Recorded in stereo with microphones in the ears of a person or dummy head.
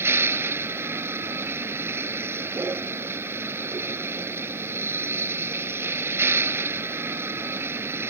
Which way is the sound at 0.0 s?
15° right (ahead or behind).